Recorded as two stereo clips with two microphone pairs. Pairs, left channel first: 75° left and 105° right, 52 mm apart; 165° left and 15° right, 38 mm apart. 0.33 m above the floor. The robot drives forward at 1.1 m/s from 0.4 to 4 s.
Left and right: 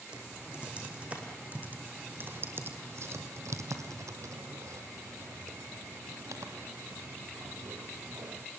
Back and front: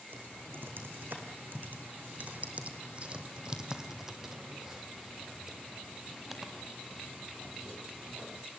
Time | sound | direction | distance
0.1 | typing on a keyboard | 35° right | 4.5 m